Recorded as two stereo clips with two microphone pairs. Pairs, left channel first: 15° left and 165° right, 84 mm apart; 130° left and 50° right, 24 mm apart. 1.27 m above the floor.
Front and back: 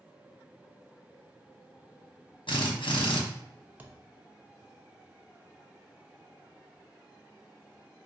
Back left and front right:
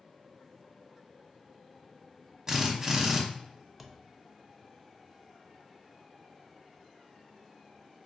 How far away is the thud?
About 0.6 m.